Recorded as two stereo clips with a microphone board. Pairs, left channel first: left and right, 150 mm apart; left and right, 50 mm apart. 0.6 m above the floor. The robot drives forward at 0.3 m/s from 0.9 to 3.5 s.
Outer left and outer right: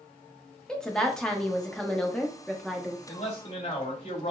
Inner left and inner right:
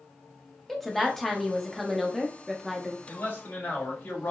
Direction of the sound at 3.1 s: 40° left (ahead or behind).